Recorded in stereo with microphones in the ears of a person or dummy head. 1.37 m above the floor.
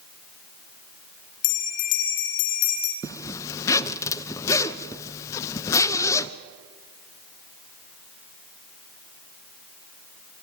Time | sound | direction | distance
1.4 | a bell | 75° left (ahead or behind) | 3 m
3.0 | a zipper | 15° left (ahead or behind) | 0.8 m